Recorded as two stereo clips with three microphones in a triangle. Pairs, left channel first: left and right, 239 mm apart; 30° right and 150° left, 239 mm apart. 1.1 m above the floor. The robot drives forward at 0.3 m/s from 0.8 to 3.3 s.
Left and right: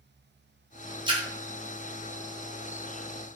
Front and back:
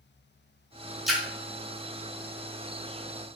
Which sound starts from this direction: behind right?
A splash, at 1.1 s.